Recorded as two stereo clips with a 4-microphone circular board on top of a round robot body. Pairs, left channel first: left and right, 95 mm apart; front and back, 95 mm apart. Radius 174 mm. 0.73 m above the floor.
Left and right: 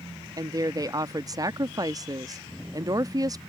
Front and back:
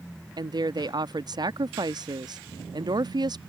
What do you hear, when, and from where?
0.4 s a woman speaking: 140° right